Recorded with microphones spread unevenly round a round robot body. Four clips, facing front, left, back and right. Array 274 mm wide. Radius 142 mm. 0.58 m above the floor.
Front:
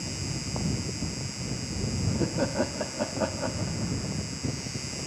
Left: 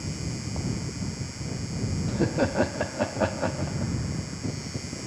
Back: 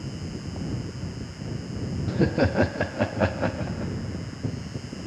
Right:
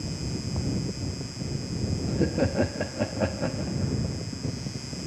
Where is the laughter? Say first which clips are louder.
Left 1 dB, back 7 dB; 170° left.